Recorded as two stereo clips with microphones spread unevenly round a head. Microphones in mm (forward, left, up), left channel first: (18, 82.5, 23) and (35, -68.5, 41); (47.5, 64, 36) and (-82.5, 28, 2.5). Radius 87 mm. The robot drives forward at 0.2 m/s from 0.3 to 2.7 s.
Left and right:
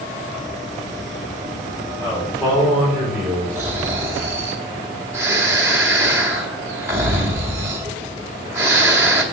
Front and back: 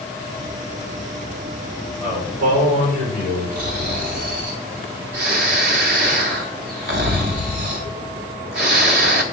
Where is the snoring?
160° right, 1.0 m.